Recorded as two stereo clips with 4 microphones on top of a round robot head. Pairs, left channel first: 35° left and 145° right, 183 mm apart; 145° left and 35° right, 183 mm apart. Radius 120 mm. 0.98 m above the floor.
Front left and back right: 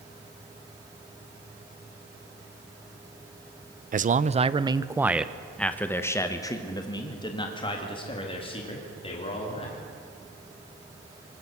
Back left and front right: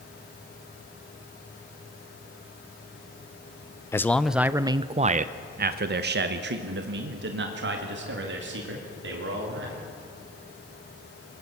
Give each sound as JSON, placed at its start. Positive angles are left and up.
{"t": 3.9, "sound": "a man speaking", "azimuth_deg": -145, "distance_m": 0.8}